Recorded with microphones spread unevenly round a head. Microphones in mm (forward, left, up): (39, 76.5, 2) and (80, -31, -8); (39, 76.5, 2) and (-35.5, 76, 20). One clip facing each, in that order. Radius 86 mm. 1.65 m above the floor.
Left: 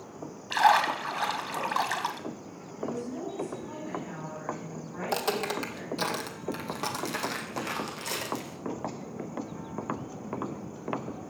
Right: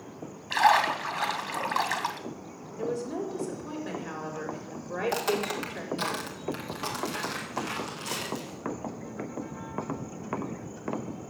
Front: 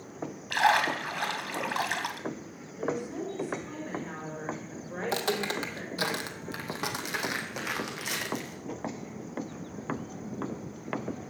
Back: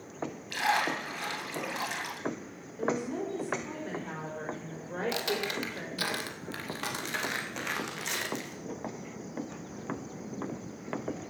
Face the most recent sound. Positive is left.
turn(degrees=95)